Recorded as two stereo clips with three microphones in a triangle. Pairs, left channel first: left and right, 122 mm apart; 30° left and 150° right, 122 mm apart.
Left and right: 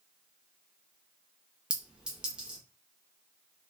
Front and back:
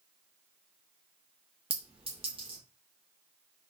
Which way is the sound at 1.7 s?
170° right.